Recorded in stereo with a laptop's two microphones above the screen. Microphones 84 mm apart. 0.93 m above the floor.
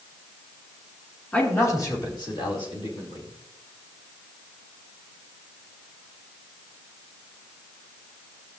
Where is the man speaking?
20° left (ahead or behind), 2 m; by 3.3 s 85° left, 3 m.